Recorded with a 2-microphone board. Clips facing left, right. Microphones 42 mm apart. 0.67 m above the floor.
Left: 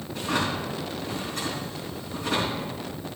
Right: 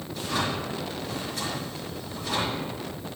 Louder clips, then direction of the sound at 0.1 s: Left 2 dB; 55° left (ahead or behind).